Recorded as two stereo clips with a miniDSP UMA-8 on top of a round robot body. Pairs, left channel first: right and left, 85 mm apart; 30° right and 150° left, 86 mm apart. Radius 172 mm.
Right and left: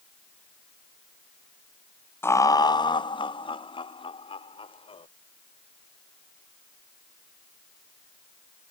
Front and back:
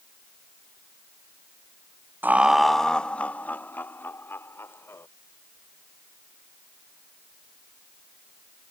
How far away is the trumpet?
I don't hear a trumpet.